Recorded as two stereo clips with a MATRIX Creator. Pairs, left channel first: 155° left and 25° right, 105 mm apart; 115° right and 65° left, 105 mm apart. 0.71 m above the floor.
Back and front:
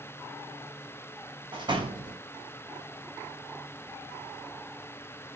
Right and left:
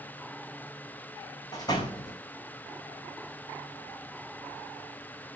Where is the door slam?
65° right, 2.5 m.